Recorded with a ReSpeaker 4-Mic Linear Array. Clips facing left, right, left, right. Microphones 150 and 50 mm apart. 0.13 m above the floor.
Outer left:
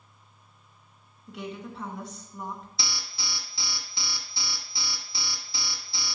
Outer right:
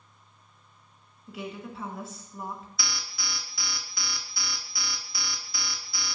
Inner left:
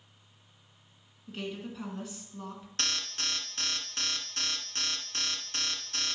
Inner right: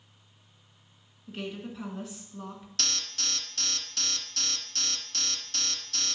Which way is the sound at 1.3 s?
5° right (ahead or behind).